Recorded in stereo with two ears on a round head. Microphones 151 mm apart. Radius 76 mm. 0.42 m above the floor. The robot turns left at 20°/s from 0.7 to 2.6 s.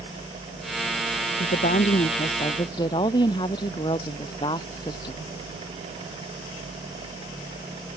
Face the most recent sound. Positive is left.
turn(degrees=25)  # may be behind; listen again after turning